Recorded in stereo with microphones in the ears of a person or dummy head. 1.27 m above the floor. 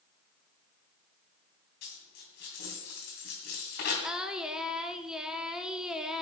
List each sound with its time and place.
1.8 s a dropped coin: 60° left (ahead or behind), 3 m
4.0 s singing: centre (ahead or behind), 0.8 m